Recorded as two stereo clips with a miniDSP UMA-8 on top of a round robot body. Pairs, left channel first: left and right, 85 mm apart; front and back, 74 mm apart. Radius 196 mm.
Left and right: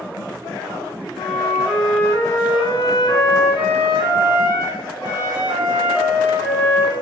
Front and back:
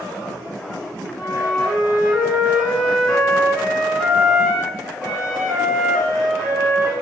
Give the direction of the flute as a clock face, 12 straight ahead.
9 o'clock.